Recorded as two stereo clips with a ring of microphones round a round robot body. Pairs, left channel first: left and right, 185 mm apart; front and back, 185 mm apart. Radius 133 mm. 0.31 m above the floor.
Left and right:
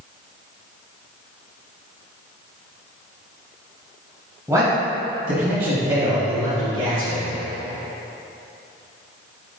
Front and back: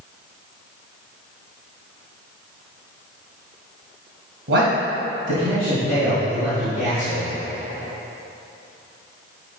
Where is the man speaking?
170° right, 2.0 m; by 7.2 s 105° right, 5 m.